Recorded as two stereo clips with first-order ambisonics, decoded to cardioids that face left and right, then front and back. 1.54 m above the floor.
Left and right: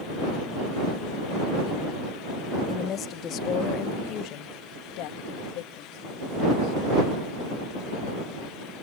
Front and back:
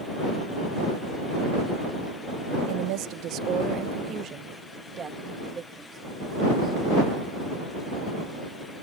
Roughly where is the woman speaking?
Behind left.